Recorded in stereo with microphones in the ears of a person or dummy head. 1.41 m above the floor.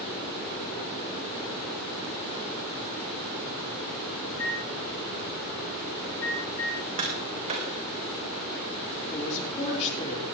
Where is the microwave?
75° left (ahead or behind), 9 m.